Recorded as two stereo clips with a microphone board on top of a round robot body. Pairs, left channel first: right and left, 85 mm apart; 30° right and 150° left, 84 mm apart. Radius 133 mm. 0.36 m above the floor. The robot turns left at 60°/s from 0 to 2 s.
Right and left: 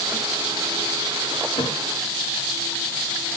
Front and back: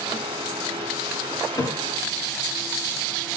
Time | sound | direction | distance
1.6 | a thud | 70° right | 1.8 m